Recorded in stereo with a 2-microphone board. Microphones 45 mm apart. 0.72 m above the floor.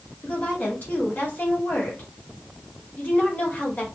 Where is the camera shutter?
No camera shutter in this recording.